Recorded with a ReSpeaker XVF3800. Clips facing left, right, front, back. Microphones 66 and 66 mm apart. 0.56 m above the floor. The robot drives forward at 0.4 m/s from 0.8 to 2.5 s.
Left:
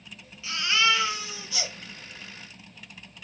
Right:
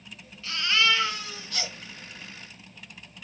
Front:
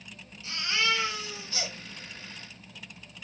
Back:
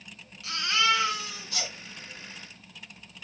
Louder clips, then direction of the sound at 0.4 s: Even, back 3 dB; 170° left.